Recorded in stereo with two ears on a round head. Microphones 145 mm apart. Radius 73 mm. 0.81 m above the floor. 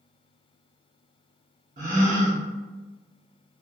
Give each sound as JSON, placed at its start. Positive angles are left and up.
{"t": 1.8, "sound": "a gasp", "side_deg": -50, "distance_m": 0.9}